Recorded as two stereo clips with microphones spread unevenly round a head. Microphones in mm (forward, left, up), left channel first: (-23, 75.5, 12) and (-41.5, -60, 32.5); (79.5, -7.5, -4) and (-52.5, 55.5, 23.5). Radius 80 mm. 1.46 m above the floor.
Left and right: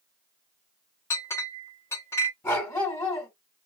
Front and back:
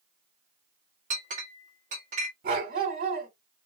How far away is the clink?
About 1.4 m.